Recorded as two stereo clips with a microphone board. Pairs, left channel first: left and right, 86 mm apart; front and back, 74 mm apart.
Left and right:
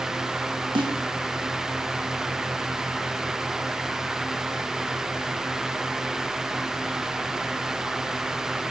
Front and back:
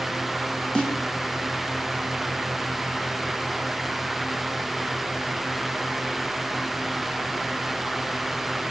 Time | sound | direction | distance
0.8 | a snare drum | 75° right | 1.4 m